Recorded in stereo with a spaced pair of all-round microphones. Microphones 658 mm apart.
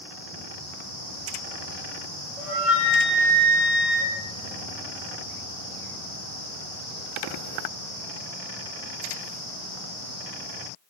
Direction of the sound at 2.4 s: 55° left (ahead or behind).